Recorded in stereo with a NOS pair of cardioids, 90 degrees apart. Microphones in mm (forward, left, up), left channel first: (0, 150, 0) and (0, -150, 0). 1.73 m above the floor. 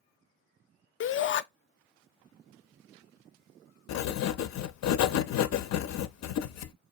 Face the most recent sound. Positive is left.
turn(degrees=60)